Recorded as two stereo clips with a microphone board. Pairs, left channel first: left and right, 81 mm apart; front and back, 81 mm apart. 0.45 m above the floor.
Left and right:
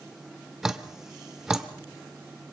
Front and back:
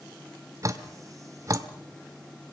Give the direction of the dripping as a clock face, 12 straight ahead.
6 o'clock.